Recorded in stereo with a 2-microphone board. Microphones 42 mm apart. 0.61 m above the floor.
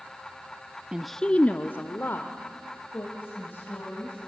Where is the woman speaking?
20° right (ahead or behind), 0.5 m; by 4.2 s 60° left (ahead or behind), 4 m.